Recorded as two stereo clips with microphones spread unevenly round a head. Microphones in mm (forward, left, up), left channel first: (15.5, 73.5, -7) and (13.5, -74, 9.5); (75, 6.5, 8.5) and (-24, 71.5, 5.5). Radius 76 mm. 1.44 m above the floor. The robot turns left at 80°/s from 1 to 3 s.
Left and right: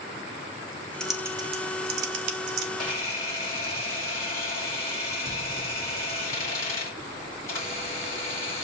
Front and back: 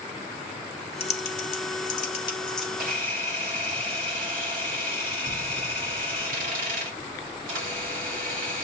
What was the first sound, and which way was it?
Typing on a keyboard, 5° left.